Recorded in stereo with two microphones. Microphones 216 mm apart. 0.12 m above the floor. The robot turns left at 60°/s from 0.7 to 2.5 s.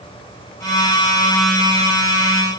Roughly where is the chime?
I don't hear a chime.